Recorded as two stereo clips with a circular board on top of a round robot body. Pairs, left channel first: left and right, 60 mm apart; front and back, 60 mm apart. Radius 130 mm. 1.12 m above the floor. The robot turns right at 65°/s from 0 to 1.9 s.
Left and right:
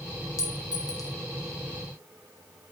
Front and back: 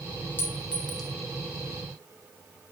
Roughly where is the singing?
No singing in this recording.